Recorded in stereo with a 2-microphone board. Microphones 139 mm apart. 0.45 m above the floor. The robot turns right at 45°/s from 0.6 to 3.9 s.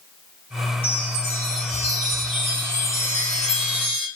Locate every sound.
0.8 s a chime: 60° left, 1.7 m; by 4.1 s 160° right, 1.7 m